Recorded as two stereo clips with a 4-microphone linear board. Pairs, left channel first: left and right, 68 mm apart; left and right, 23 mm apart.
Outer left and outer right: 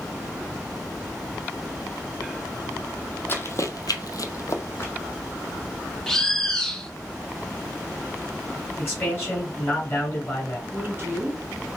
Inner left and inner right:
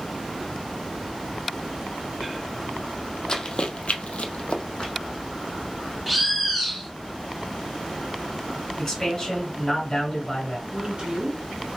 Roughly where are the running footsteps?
Left.